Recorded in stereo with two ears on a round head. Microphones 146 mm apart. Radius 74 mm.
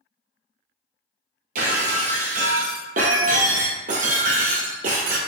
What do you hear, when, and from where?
1.6 s breaking glass: 55° right (ahead or behind), 1.0 m